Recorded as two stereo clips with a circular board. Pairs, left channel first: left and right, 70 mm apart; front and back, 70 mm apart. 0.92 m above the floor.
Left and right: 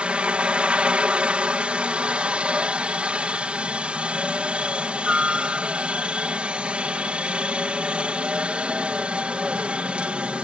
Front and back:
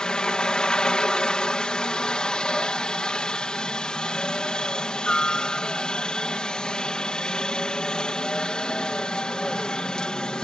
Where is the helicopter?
55° right.